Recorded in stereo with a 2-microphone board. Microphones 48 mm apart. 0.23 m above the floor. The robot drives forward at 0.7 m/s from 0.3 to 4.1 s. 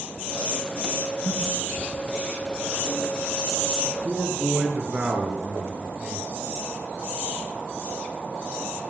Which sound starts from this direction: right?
A man speaking, at 3.9 s.